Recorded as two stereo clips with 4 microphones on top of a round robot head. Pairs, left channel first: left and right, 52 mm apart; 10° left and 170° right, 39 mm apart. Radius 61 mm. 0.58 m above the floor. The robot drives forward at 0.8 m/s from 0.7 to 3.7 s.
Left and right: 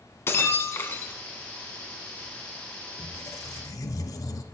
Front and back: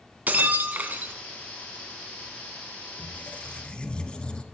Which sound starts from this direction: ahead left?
A squeak, at 3.0 s.